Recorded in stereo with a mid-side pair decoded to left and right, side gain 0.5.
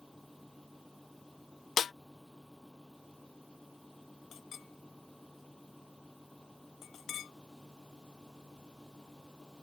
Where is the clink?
60° left.